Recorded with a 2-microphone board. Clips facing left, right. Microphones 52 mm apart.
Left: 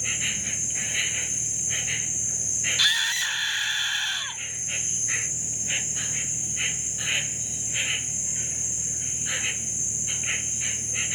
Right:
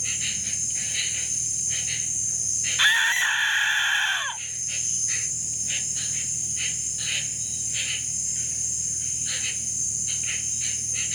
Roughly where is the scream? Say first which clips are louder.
Right 5 dB; right.